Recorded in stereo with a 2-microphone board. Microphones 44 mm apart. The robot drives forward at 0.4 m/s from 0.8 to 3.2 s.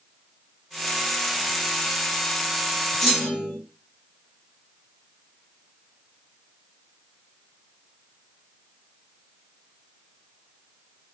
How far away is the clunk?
About 1.7 m.